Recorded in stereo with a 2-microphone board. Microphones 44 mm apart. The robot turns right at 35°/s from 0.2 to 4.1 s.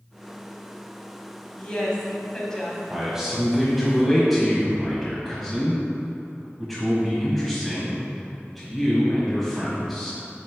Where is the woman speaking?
20° left (ahead or behind), 1.1 m; by 2.8 s 10° left (ahead or behind), 1.1 m.